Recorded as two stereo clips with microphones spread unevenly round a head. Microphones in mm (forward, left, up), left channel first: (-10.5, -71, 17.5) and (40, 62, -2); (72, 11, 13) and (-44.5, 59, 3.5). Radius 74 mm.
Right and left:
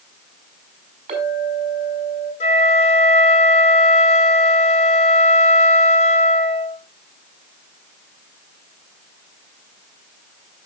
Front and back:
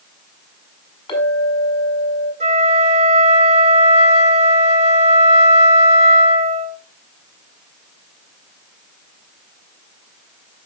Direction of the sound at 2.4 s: 155° right.